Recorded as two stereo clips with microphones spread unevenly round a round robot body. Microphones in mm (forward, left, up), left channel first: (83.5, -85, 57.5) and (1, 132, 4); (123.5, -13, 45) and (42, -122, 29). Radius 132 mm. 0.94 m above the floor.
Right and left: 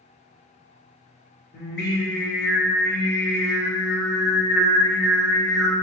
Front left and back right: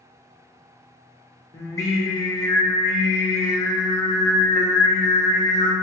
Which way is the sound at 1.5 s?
20° right.